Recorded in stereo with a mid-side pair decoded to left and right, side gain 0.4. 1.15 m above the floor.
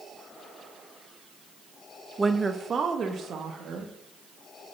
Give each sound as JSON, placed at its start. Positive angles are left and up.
{"t": 2.2, "sound": "a woman speaking", "azimuth_deg": -20, "distance_m": 0.8}